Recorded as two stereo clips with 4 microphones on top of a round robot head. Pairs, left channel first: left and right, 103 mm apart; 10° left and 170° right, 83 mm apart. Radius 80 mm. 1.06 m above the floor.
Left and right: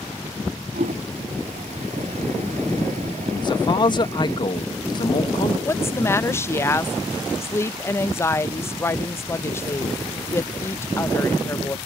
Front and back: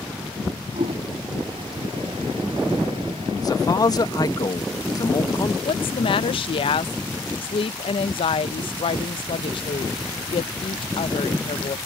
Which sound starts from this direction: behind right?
A toilet flushing, at 0.7 s.